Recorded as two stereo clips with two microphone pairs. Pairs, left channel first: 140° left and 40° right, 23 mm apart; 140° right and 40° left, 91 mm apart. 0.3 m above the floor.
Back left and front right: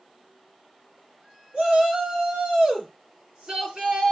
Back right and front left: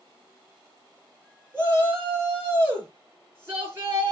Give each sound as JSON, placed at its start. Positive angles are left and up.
{"t": 1.5, "sound": "a shout", "azimuth_deg": -20, "distance_m": 4.5}